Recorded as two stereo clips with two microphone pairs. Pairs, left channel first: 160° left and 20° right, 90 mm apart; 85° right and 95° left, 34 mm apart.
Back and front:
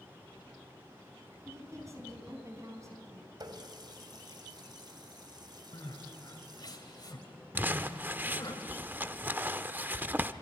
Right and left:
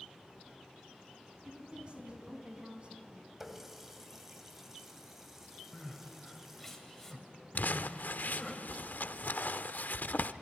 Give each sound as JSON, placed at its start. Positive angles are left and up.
{"t": 1.4, "sound": "a woman speaking", "azimuth_deg": 35, "distance_m": 4.5}
{"t": 3.4, "sound": "a running tap", "azimuth_deg": 15, "distance_m": 2.0}
{"t": 5.7, "sound": "crying", "azimuth_deg": -170, "distance_m": 3.0}
{"t": 7.5, "sound": "crumpling", "azimuth_deg": -85, "distance_m": 0.7}